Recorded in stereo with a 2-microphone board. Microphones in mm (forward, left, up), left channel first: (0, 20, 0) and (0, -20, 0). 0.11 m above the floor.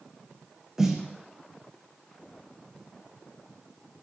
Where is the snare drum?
10° right (ahead or behind), 1.1 m.